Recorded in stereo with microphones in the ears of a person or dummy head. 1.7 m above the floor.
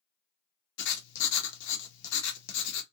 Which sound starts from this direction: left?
Writing, at 0.8 s.